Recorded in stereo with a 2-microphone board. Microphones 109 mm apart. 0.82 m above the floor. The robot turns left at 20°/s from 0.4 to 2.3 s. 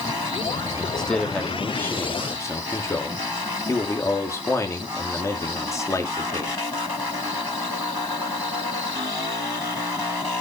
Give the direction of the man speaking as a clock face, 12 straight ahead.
6 o'clock.